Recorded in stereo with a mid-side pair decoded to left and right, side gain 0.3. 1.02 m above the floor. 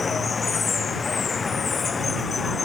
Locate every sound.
0.0 s running water: 45° left